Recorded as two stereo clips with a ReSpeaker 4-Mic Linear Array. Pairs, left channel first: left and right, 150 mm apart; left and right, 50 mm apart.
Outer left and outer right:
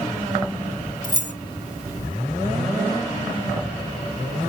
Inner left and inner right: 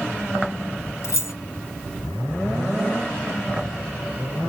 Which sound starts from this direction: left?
Keys jangling, at 1.0 s.